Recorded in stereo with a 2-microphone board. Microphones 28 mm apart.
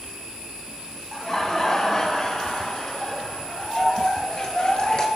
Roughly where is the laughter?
Centre.